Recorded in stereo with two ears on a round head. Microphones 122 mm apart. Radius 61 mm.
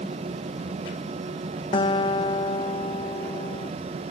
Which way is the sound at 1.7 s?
35° left (ahead or behind).